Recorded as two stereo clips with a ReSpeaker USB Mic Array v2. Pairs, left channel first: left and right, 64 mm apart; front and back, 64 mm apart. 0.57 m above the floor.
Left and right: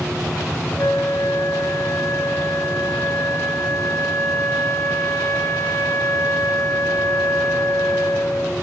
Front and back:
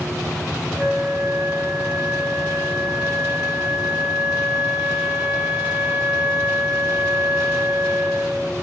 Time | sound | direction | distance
0.8 | a flute | 120° left | 1.0 m